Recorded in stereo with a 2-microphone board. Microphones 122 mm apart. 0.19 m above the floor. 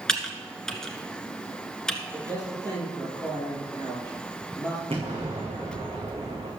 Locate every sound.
0.1 s typing on a keyboard: 5° left (ahead or behind), 1.4 m
2.1 s a man speaking: 30° right (ahead or behind), 5.5 m
4.9 s an explosion: 50° right (ahead or behind), 4.5 m